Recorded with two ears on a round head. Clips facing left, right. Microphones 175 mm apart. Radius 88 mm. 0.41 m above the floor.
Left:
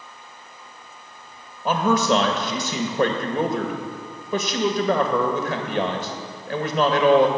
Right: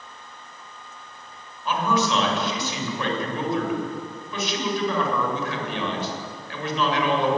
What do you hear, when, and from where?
1.6 s a man speaking: 40° left (ahead or behind), 2 m